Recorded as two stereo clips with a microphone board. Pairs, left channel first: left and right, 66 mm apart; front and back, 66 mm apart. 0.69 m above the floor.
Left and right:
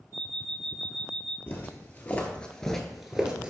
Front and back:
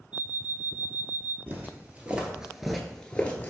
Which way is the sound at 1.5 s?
135° left.